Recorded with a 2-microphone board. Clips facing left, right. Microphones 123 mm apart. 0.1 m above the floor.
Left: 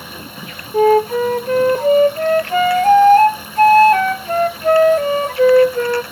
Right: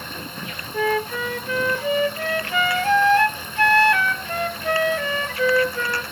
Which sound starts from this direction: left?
A flute, at 0.7 s.